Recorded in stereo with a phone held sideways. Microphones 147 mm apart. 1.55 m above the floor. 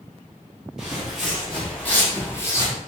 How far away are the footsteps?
About 2.0 m.